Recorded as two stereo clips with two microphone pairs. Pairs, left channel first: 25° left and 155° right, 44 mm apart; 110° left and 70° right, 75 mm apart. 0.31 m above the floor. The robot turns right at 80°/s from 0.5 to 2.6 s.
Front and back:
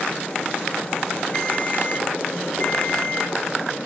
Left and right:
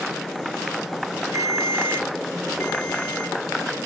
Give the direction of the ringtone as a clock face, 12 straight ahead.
1 o'clock.